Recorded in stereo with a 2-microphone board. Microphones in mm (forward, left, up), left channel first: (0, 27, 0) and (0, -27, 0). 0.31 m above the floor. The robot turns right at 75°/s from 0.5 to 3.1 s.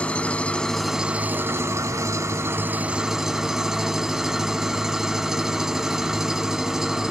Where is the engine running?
155° left, 0.7 m; by 7.1 s 10° right, 0.7 m.